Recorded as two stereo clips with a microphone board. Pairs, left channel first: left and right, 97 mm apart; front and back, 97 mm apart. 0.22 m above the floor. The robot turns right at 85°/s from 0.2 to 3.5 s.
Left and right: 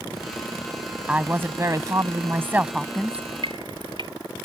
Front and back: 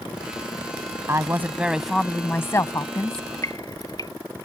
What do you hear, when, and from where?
1.1 s a woman speaking: 160° right; by 3.3 s 30° left
3.1 s dripping: 85° right; by 4.1 s 50° right